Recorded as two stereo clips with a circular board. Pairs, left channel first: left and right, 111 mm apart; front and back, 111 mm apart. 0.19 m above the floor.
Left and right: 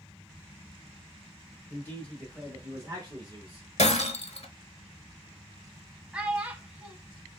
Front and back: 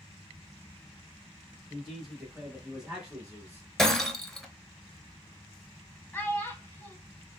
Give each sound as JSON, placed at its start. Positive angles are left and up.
{"t": 1.7, "sound": "a man speaking", "azimuth_deg": 85, "distance_m": 1.2}
{"t": 3.8, "sound": "breaking glass", "azimuth_deg": 85, "distance_m": 0.5}
{"t": 6.1, "sound": "a child speaking", "azimuth_deg": -30, "distance_m": 0.6}